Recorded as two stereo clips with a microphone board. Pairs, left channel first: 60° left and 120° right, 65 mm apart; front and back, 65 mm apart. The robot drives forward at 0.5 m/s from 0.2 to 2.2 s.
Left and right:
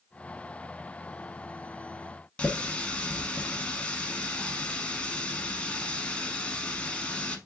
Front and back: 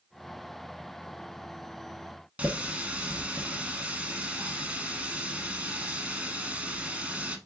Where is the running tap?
120° left, 0.8 m.